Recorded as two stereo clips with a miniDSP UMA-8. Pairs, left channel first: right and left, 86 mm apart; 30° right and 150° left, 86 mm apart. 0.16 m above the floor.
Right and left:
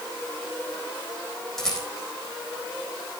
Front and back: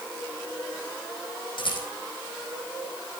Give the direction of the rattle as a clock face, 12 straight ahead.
12 o'clock.